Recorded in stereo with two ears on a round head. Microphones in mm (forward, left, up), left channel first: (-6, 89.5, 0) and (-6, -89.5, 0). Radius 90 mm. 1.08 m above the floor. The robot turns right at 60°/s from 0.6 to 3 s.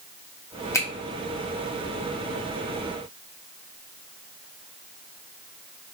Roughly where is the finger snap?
Centre.